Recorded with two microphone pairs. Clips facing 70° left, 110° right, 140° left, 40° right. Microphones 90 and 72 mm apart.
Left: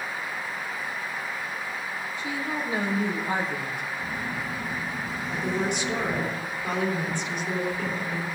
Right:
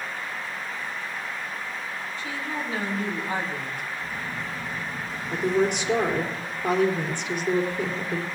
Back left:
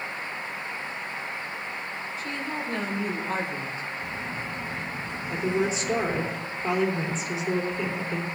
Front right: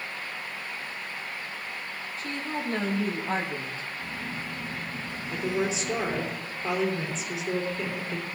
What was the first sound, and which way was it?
A woman speaking, 5° right.